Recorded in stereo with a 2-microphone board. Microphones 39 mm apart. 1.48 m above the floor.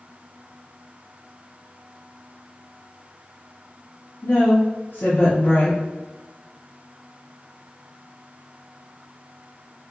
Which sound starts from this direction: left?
A woman speaking, at 4.2 s.